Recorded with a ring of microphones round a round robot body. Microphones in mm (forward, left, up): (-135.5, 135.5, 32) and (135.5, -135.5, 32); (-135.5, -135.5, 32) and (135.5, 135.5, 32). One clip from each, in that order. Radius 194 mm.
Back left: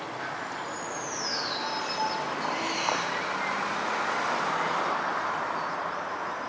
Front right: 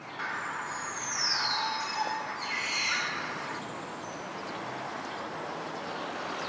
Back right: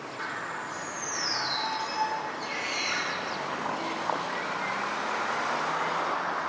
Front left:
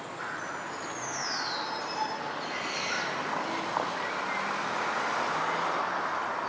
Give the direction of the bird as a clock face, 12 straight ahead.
2 o'clock.